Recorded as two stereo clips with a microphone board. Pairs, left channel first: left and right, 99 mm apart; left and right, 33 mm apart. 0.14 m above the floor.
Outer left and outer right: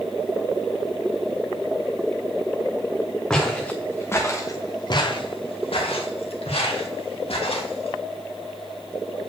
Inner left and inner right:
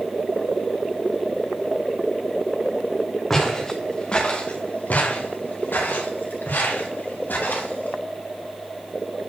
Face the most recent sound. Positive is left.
turn(degrees=75)  # may be behind; listen again after turning